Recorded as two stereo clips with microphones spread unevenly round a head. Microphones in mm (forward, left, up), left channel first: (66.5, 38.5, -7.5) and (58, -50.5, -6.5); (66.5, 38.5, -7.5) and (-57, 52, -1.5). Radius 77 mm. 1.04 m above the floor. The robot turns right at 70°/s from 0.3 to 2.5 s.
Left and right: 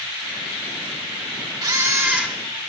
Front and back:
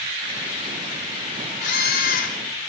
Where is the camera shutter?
55° right, 4.5 m; by 2.7 s 5° left, 4.5 m.